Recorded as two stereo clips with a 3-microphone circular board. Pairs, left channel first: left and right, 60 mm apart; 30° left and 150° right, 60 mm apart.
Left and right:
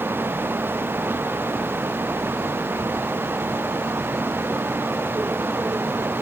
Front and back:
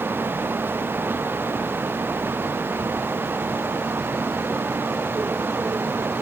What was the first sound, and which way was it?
Only background noise.